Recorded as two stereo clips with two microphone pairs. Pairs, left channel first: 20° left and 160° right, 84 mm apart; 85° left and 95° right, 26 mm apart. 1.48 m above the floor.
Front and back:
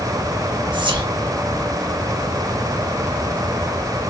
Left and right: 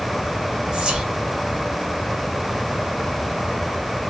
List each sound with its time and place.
0.7 s whispering: 140° right, 1.0 m